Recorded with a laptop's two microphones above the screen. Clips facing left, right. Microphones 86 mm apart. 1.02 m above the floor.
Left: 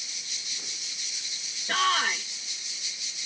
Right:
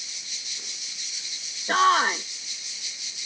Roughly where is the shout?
Right.